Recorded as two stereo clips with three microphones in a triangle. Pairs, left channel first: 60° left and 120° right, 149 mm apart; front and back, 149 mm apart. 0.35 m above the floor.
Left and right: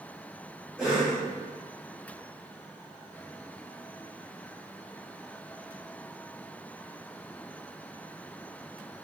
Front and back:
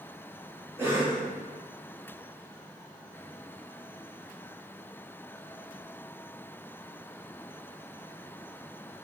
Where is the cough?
155° left, 1.5 m.